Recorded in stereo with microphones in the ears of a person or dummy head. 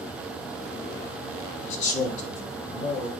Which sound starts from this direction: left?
A man speaking, at 1.6 s.